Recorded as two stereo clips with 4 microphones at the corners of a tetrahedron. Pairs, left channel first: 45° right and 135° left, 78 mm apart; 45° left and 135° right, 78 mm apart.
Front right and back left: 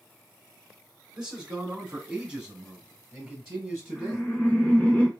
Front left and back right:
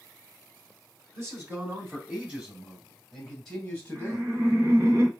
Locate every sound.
1.1 s a man speaking: 155° right, 1.8 m; by 4.3 s 60° left, 1.5 m
4.0 s laughter: 110° right, 1.4 m